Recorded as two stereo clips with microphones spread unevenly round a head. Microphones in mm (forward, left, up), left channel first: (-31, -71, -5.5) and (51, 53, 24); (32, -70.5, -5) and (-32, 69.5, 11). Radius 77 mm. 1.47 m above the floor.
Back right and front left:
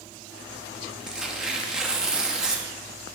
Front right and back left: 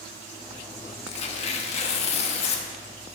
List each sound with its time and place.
1.1 s tearing paper: 20° right, 1.1 m